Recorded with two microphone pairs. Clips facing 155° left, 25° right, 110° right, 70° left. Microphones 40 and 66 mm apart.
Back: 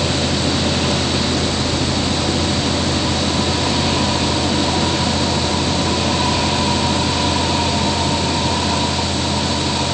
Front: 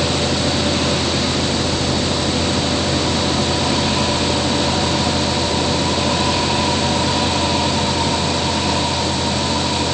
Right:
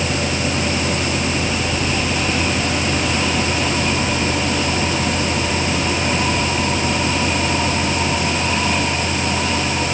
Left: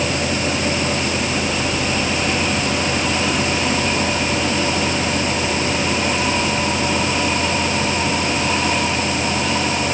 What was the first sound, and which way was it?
Only background noise.